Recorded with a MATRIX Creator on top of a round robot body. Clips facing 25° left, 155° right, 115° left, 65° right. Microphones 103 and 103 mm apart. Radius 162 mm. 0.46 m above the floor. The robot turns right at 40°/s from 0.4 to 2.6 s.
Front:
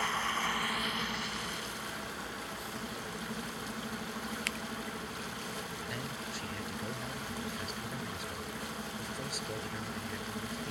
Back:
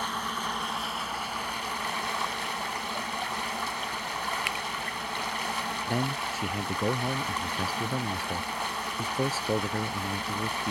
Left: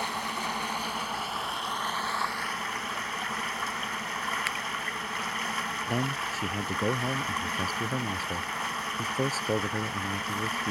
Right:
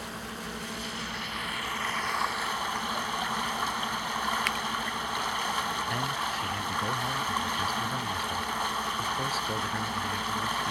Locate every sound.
0.0 s running water: 130° left; by 10.7 s 145° right
4.5 s a finger snap: 165° right
5.9 s a man speaking: 165° left